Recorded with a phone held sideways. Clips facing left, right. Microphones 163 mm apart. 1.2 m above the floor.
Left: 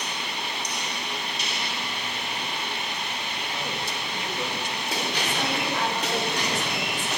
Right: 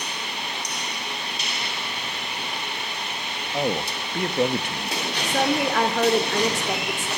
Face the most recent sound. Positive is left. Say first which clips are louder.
# right 10 dB
turn(degrees=-85)